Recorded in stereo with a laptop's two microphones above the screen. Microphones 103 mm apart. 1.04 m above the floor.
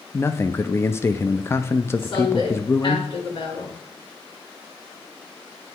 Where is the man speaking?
25° left (ahead or behind), 0.5 m.